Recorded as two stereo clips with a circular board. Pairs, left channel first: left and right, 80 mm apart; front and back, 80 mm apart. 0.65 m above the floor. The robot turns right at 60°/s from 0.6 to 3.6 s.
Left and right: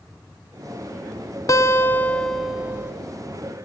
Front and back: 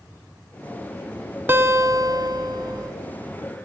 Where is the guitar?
125° left, 0.7 m; by 2.9 s 150° right, 0.7 m.